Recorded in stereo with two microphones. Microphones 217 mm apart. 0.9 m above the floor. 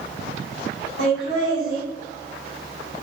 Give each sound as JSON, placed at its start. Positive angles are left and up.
{"t": 1.0, "sound": "laughter", "side_deg": 75, "distance_m": 1.4}